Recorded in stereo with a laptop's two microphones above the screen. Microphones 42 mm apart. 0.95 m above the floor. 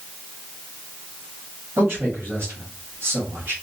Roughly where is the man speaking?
Right.